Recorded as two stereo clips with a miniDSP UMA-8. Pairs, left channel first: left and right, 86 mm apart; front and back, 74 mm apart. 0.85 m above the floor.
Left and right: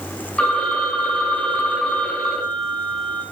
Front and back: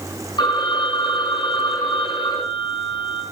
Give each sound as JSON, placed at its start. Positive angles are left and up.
{"t": 0.4, "sound": "a phone ringing", "azimuth_deg": 15, "distance_m": 6.0}